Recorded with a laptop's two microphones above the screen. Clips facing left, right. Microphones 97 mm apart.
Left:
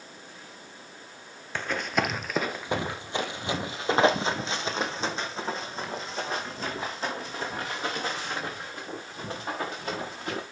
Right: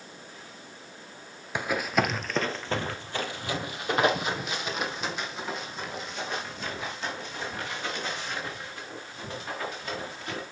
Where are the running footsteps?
10° right (ahead or behind), 1.1 m; by 10.4 s 40° left (ahead or behind), 7 m.